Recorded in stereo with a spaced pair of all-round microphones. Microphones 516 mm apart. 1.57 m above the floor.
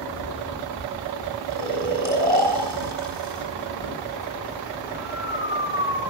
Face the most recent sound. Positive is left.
turn(degrees=-50)  # may be behind; listen again after turning